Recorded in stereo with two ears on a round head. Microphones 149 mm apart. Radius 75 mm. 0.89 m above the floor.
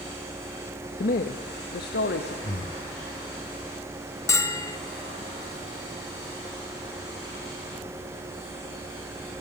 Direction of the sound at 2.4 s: 35° left (ahead or behind).